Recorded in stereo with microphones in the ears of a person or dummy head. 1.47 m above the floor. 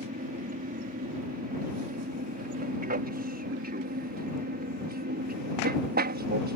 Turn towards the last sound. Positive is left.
turn(degrees=-45)  # may be behind; listen again after turning